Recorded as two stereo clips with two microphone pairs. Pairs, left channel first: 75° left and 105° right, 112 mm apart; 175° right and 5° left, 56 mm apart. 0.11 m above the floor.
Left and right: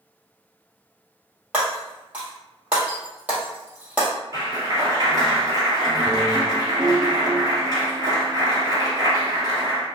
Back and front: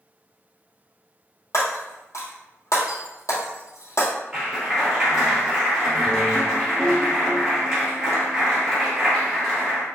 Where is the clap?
65° right, 1.9 m.